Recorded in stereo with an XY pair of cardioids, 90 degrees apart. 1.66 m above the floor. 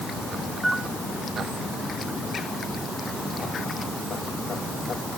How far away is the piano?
About 5 m.